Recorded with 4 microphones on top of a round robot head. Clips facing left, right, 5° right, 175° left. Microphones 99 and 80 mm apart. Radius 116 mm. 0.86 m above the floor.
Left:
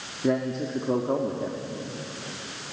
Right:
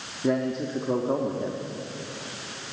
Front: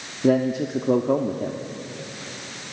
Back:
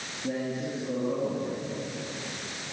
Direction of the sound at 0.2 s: Straight ahead.